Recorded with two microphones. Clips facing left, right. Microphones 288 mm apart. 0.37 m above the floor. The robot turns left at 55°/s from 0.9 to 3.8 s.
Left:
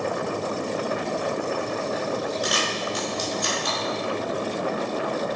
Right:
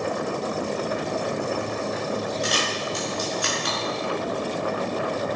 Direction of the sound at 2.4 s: 25° right (ahead or behind).